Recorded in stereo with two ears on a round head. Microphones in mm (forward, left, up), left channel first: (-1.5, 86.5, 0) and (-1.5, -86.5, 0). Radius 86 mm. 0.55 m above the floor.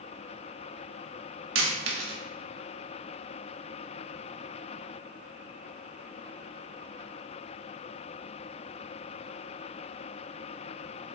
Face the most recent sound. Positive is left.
turn(degrees=-75)  # may be behind; listen again after turning